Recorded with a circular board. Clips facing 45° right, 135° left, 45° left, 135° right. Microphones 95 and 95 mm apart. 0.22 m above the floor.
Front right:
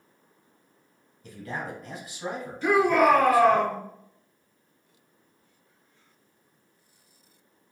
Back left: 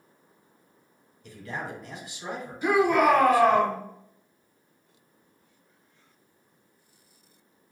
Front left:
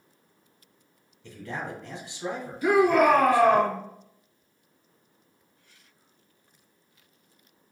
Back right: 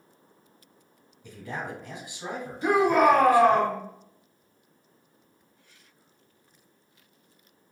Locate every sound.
1.2 s a man speaking: 70° right, 1.8 m
2.6 s a shout: 165° right, 1.5 m